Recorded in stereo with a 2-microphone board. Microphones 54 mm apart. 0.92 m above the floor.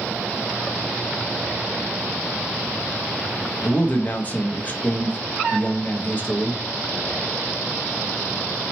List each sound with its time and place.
3.6 s a man speaking: 35° left (ahead or behind), 0.7 m